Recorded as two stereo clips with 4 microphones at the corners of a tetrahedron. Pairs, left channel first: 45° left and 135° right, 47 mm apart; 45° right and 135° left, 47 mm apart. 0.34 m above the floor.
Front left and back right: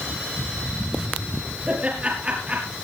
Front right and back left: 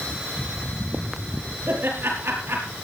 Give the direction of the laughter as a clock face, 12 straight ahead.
6 o'clock.